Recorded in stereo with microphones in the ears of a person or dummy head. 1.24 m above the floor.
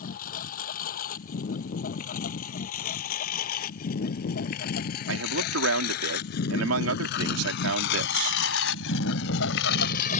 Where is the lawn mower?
50° left (ahead or behind); by 10.2 s 45° left (ahead or behind).